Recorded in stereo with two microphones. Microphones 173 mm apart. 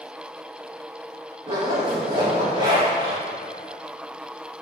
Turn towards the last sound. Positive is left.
turn(degrees=-25)  # may be behind; listen again after turning